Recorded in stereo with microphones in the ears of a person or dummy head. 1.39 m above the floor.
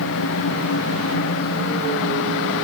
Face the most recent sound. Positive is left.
No sound to turn to.